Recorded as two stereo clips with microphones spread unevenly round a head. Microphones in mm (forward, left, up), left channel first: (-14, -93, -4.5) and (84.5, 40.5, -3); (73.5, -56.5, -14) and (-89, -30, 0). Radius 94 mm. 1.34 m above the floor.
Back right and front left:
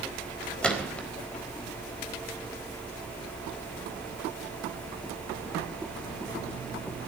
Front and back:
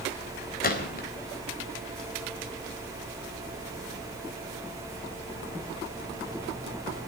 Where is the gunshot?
40° right, 4 m.